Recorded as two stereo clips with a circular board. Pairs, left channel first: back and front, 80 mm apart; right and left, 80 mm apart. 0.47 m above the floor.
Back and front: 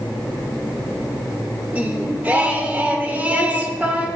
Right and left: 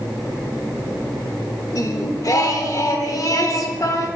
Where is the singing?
65° right, 0.7 m.